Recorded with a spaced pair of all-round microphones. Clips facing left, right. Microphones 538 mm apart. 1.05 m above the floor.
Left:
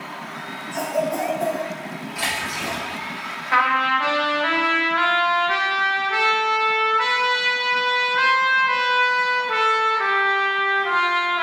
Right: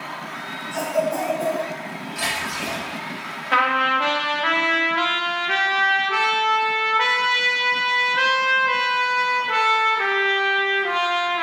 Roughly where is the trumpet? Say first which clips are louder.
Right 2 dB; right.